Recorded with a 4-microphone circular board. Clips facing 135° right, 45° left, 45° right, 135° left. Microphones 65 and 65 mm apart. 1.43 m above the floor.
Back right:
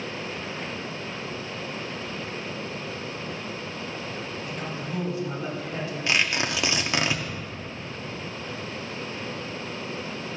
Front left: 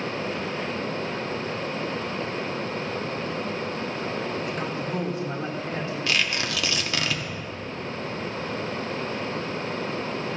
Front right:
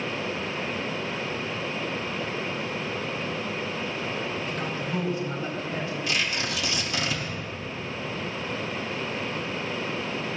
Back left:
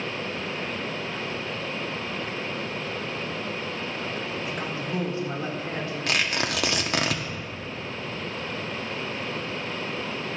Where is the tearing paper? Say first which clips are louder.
Back right 3 dB, back left 4 dB; 160° left, 1.1 m.